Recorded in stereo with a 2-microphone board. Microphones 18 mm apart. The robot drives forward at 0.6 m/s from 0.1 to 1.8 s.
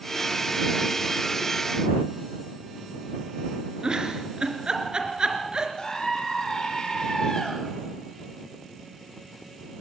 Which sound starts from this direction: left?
A scream, at 5.8 s.